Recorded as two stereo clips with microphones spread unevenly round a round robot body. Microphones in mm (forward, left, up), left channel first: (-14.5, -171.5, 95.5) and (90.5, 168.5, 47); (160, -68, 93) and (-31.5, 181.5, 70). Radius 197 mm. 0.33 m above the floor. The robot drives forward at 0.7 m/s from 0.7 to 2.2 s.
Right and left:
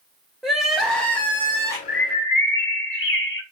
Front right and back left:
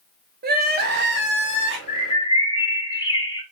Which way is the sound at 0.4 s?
150° left.